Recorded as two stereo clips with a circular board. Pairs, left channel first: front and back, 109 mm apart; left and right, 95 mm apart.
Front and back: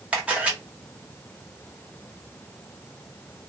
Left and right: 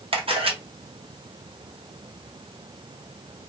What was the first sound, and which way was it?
A camera shutter, 100° right.